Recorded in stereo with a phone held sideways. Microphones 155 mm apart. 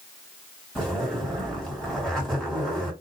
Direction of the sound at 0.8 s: 5° left (ahead or behind).